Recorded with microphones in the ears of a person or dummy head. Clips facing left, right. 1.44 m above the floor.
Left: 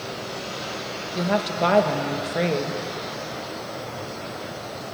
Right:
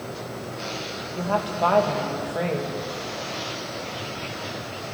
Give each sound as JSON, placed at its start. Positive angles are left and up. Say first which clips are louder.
{"t": 1.1, "sound": "a woman speaking", "louder": "left 2 dB", "side_deg": 25, "distance_m": 2.0}